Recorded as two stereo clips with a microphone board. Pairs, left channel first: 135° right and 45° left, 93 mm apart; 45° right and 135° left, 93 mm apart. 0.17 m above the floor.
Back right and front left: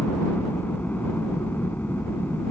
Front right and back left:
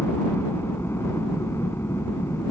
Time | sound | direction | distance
0.0 | a helicopter | 80° right | ?